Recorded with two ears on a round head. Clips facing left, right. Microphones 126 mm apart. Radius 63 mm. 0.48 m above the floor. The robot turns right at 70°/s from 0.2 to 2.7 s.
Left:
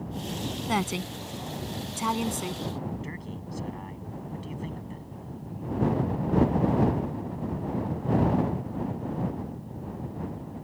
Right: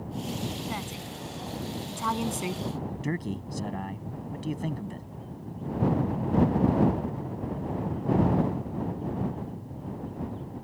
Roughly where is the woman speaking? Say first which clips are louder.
Left 7 dB; left.